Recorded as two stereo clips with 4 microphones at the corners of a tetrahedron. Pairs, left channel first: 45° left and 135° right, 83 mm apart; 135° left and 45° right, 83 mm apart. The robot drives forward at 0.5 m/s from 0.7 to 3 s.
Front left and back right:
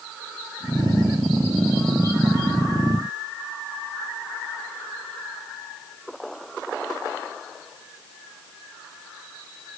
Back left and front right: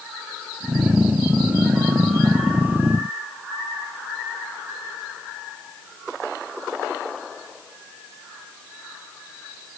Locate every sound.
Only background noise.